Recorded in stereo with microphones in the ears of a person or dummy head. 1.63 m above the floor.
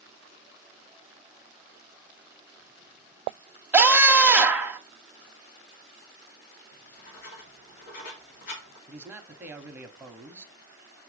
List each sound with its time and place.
3.7 s a scream: 5° right (ahead or behind), 0.9 m
6.7 s writing: 55° left (ahead or behind), 1.8 m
8.9 s a man speaking: 5° right (ahead or behind), 1.0 m